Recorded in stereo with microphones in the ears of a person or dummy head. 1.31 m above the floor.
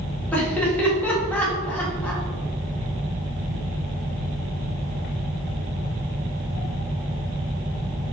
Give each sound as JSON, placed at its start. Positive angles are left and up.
{"t": 0.3, "sound": "laughter", "side_deg": 5, "distance_m": 2.5}